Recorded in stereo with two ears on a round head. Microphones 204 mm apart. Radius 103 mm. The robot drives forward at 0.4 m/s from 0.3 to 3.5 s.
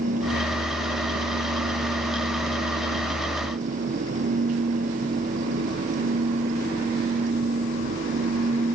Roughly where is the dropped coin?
No dropped coin in this recording.